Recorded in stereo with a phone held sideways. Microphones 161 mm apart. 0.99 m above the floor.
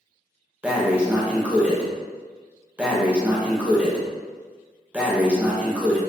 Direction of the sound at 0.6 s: 10° right (ahead or behind).